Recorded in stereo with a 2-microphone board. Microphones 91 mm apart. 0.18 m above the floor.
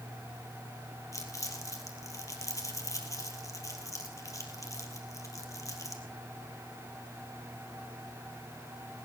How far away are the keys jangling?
No keys jangling in this recording.